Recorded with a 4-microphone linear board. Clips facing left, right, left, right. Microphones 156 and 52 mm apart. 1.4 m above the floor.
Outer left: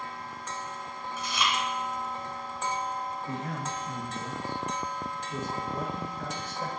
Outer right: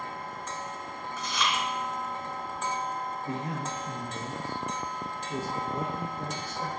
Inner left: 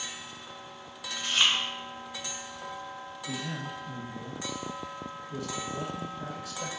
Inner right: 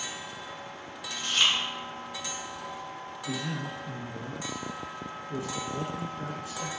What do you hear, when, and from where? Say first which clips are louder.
1.2 s chewing: even, even; 10° left (ahead or behind), 1.2 m
3.3 s a man speaking: outer right 1 dB, inner right 2 dB; 30° right (ahead or behind), 1.5 m